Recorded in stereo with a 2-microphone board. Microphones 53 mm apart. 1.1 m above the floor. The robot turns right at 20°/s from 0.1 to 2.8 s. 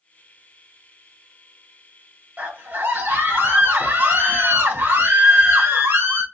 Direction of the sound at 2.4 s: 30° right (ahead or behind).